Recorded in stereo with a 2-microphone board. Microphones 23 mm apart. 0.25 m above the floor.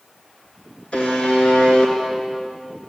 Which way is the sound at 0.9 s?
55° left (ahead or behind).